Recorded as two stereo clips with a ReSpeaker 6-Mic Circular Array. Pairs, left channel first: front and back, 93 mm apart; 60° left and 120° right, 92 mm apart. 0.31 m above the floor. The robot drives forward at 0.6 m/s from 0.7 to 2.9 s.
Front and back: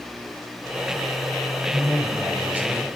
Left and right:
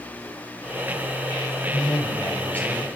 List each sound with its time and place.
1.7 s a woman speaking: 85° left, 1.6 m; by 2.9 s 125° left, 1.7 m